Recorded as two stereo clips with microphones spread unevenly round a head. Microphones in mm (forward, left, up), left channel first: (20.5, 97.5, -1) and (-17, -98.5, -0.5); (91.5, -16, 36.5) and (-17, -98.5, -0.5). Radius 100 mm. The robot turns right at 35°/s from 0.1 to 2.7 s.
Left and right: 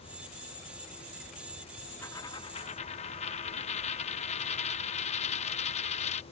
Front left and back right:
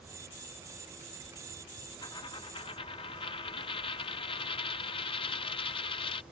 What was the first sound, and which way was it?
A dropped coin, 5° left.